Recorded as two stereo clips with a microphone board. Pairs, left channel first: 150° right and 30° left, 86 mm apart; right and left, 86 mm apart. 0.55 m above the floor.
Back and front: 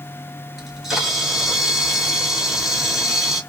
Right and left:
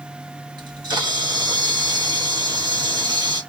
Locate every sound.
0.6 s a camera shutter: 115° left, 1.9 m